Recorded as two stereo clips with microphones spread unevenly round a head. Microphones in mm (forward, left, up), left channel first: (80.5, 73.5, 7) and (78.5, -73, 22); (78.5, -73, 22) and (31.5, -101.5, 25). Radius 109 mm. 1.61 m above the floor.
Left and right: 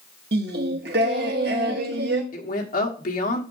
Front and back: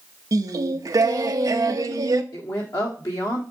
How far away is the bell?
I don't hear a bell.